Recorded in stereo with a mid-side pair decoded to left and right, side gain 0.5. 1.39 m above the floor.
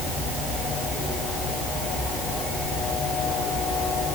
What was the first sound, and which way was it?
Only background noise.